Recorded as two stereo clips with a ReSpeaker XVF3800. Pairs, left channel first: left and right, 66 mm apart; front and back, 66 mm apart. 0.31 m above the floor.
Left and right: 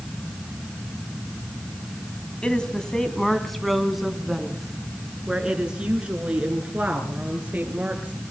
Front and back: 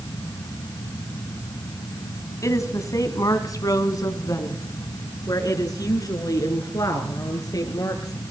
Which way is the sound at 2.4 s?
15° left.